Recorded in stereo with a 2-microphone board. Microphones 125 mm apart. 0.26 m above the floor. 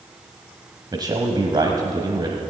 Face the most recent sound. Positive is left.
turn(degrees=-35)  # may be behind; listen again after turning